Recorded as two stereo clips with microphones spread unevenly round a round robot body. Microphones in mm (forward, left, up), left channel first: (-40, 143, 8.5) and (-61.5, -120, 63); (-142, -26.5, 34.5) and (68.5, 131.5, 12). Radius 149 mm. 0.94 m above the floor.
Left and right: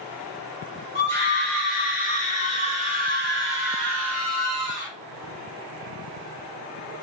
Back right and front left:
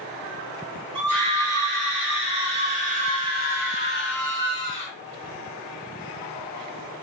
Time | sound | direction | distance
0.9 | a scream | 10° left | 2.5 m